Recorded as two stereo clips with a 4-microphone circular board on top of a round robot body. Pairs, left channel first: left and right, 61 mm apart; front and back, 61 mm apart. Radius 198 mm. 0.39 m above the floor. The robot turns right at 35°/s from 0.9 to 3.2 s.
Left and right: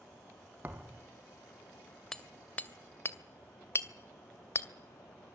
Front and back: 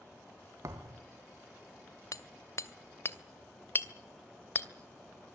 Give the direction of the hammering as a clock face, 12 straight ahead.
12 o'clock.